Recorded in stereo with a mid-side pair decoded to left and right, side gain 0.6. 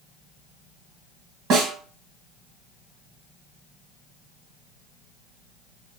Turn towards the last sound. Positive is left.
turn(degrees=-60)